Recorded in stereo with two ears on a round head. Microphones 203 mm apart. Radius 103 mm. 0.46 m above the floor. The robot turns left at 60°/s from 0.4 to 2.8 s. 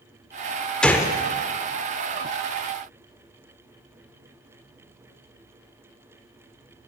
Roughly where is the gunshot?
Centre.